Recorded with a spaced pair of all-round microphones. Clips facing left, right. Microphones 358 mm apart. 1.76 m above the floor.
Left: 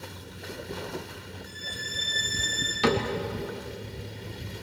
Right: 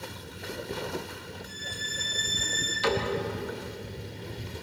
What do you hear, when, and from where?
1.4 s a violin: 80° right, 8.5 m
2.8 s a cupboard door: 70° left (ahead or behind), 3 m